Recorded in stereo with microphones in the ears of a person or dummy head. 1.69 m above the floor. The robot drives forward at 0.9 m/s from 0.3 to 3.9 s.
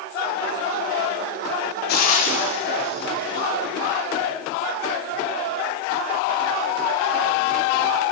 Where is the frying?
60° left (ahead or behind), 1.4 m; by 3.5 s 30° left (ahead or behind), 2.5 m.